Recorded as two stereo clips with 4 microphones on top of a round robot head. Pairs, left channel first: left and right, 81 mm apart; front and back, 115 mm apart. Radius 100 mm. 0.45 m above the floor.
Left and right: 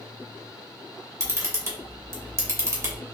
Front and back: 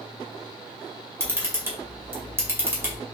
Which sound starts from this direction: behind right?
A camera shutter, at 1.2 s.